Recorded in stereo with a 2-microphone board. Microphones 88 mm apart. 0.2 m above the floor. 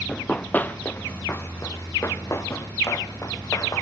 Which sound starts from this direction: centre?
Running footsteps, at 0.1 s.